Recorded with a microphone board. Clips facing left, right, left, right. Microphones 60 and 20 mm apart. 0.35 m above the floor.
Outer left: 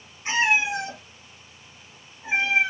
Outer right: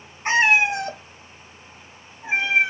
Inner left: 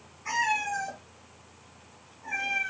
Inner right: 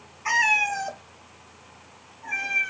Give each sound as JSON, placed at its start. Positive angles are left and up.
{"t": 0.2, "sound": "a cat meowing", "side_deg": -55, "distance_m": 0.5}